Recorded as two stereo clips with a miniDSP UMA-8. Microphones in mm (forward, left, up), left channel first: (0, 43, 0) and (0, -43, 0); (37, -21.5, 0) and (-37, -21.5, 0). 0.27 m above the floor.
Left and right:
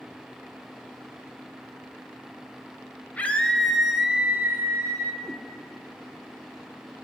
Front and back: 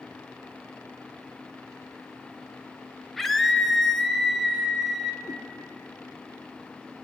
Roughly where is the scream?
Left.